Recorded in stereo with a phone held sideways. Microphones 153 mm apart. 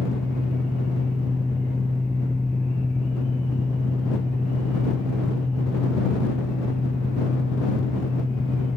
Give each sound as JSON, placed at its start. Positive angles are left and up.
{"t": 0.0, "sound": "a fan", "side_deg": 0}